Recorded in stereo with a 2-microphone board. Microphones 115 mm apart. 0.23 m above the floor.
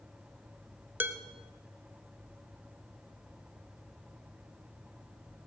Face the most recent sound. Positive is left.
turn(degrees=-15)  # may be behind; listen again after turning